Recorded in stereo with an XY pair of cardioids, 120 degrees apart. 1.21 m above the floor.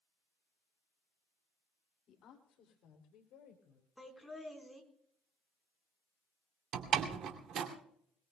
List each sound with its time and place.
2.1 s a woman speaking: 55° left, 2.5 m; by 3.9 s 80° left, 4 m
4.0 s laughter: straight ahead, 4.5 m
6.7 s a door slam: 65° right, 2.5 m